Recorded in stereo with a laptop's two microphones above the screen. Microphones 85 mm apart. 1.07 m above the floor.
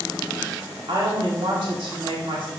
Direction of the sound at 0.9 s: 80° right.